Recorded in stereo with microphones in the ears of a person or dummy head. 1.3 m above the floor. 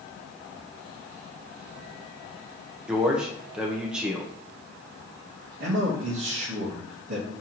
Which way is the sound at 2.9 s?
5° right (ahead or behind).